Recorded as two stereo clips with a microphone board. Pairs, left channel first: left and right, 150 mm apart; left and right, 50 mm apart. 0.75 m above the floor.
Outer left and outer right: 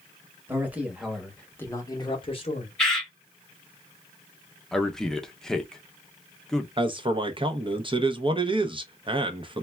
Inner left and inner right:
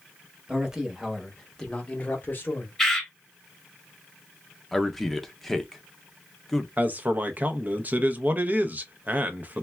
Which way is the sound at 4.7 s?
5° left (ahead or behind).